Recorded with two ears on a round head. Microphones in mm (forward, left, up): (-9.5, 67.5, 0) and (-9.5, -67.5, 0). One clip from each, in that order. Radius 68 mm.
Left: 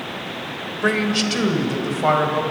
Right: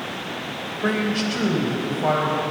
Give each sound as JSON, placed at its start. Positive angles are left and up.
{"t": 0.8, "sound": "a man speaking", "side_deg": 40, "distance_m": 3.0}